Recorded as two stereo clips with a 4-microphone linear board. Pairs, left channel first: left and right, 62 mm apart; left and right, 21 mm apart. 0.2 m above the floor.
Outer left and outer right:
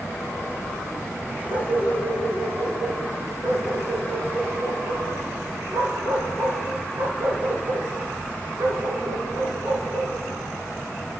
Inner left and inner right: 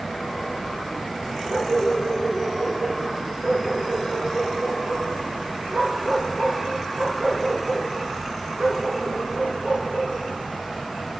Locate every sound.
1.5 s a dog barking: 85° right, 9 m; by 10.2 s 65° right (ahead or behind), 8.5 m